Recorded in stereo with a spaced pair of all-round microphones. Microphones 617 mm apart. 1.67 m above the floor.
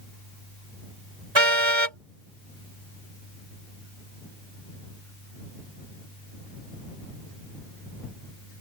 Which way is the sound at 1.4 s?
50° right (ahead or behind).